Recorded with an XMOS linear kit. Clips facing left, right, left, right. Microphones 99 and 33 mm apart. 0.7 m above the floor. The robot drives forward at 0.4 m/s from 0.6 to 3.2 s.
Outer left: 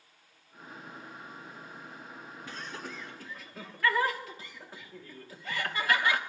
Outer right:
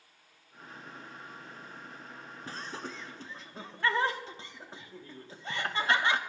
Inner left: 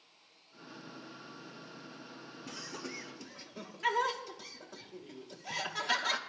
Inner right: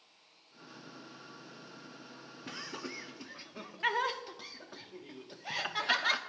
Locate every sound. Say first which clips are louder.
2.5 s laughter: outer right 2 dB, inner right 2 dB; 30° right (ahead or behind), 0.8 m; by 6.2 s 25° right (ahead or behind), 1.0 m